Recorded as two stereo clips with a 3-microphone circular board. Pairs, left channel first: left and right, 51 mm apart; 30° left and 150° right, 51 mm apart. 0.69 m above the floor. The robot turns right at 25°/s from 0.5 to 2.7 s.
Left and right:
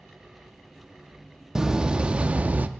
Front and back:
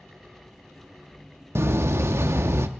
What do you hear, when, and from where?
1.6 s a door slam: 165° right, 0.5 m; by 2.7 s 135° right, 0.5 m